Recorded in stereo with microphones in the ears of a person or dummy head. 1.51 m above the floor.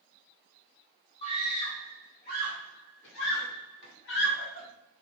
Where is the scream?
40° left (ahead or behind), 1.6 m; by 4.7 s 45° left (ahead or behind), 0.9 m.